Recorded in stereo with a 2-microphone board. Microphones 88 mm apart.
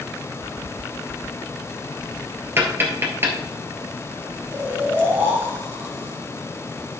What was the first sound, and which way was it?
Tapping, 30° right (ahead or behind).